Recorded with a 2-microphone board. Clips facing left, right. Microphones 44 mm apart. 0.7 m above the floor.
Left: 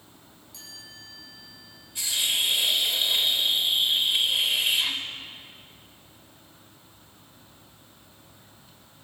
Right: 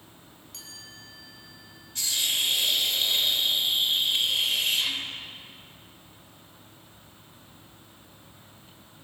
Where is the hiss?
15° left (ahead or behind), 3 m.